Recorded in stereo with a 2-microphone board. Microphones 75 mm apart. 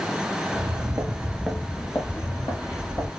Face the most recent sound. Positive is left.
turn(degrees=50)  # may be behind; listen again after turning